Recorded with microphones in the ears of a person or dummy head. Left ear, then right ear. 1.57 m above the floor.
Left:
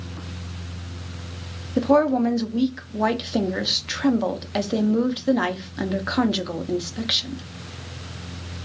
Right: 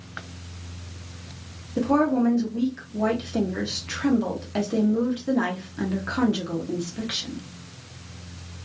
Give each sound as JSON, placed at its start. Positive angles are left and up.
{"t": 1.8, "sound": "a woman speaking", "side_deg": 30, "distance_m": 0.5}